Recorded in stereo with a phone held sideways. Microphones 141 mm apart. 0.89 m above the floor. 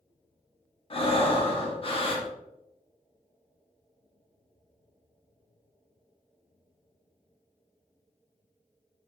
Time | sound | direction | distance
0.9 | breathing | 40° left (ahead or behind) | 0.5 m